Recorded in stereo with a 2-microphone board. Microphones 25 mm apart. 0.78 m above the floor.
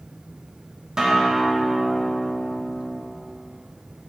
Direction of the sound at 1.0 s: 30° right (ahead or behind).